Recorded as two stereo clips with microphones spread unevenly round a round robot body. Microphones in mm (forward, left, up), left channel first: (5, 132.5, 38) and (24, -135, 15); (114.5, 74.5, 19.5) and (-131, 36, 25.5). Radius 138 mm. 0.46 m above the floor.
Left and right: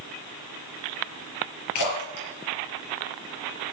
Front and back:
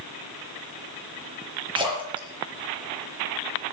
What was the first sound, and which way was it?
A splash, 120° left.